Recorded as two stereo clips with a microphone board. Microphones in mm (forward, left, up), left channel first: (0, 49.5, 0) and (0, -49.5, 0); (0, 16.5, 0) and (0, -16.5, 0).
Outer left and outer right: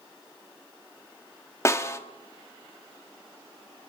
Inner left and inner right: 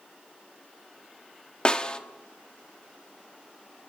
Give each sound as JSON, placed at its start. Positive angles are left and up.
{"t": 1.6, "sound": "a snare drum", "side_deg": 30, "distance_m": 1.3}